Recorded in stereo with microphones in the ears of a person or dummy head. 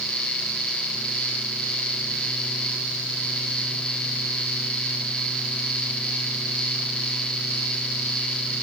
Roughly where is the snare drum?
No snare drum in this recording.